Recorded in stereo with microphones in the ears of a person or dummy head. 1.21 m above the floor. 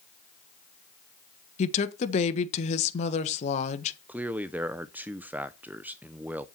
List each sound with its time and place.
1.6 s a woman speaking: 45° left (ahead or behind), 1.2 m
4.1 s a man speaking: 10° right (ahead or behind), 0.6 m